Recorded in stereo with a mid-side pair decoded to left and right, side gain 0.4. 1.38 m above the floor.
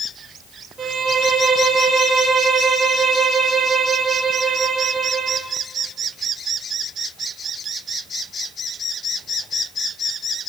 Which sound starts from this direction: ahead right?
A violin, at 0.8 s.